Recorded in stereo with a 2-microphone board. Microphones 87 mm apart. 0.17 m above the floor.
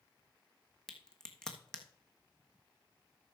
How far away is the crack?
About 1.5 m.